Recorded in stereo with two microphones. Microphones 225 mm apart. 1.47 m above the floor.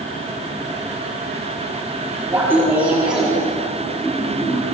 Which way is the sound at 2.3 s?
10° right (ahead or behind).